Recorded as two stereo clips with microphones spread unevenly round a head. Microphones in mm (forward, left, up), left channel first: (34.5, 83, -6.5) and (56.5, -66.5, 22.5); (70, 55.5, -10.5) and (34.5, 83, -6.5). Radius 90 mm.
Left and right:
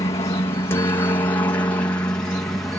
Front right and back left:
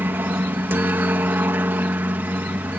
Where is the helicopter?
150° left; by 2.8 s 175° left.